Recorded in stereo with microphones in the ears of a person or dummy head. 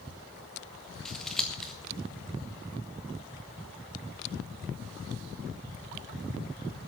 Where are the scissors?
5° left (ahead or behind), 1.8 m.